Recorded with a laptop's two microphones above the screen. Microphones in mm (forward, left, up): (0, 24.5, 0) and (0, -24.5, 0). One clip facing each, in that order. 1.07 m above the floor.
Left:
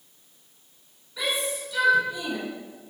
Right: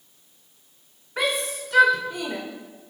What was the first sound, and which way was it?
A shout, 55° right (ahead or behind).